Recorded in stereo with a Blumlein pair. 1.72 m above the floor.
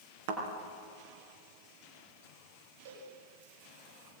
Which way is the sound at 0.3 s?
55° right.